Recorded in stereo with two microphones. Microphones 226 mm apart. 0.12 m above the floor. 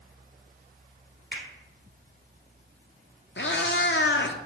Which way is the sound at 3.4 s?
60° left (ahead or behind).